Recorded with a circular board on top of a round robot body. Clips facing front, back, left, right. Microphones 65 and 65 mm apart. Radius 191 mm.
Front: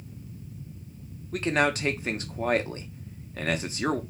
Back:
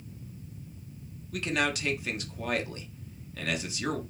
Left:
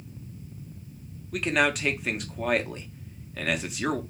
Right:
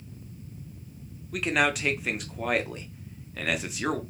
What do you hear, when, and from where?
1.3 s a man speaking: 5° right, 0.9 m